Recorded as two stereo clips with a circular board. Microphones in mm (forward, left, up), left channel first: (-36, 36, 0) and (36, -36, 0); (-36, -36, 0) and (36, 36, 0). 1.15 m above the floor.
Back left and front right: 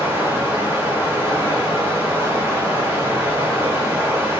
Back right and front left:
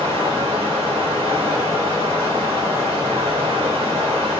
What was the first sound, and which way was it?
Running water, 25° left.